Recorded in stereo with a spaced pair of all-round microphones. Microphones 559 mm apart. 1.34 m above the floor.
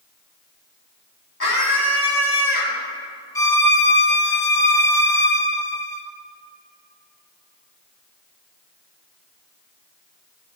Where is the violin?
5° left (ahead or behind), 1.1 m.